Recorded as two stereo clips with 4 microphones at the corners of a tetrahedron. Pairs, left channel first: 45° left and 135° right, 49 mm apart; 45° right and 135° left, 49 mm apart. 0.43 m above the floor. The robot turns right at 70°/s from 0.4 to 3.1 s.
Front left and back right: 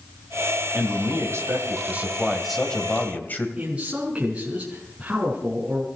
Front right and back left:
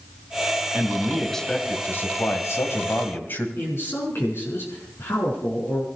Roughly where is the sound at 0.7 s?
Behind.